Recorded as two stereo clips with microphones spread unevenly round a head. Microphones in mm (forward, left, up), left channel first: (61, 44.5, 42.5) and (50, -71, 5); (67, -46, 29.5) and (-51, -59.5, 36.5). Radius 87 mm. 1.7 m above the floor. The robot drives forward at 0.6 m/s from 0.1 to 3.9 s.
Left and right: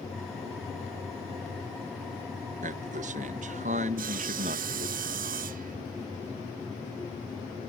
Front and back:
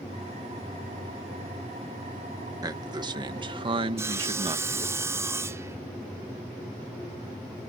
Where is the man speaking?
115° right; by 5.0 s 130° right.